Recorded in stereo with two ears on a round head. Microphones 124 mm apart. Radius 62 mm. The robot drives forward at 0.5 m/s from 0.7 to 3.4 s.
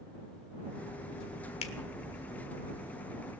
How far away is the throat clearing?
I don't hear throat clearing.